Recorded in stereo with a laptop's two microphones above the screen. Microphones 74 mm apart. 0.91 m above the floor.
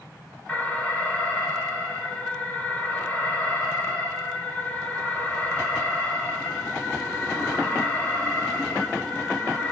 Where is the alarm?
25° left (ahead or behind), 1.8 m.